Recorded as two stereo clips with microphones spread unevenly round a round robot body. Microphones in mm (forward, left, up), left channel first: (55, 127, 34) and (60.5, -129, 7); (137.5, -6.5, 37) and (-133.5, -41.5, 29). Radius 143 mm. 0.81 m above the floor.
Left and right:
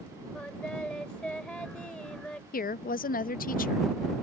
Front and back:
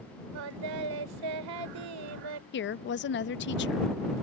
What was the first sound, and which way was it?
Singing, 175° left.